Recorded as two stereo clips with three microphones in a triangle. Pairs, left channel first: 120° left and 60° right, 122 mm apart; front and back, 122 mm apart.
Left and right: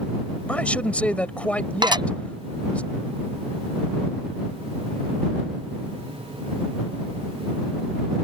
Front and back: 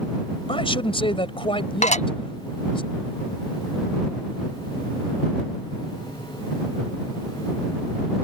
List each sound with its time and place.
0.5 s a man speaking: 40° left
1.8 s dishes clattering: 10° right